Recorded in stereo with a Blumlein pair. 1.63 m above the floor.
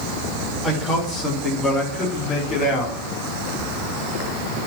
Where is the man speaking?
15° left, 3 m; by 3.0 s 25° left, 4 m.